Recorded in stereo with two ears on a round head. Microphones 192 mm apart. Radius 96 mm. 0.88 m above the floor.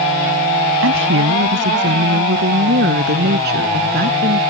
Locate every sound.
0.8 s a woman speaking: 65° right (ahead or behind); by 4.4 s 45° right (ahead or behind)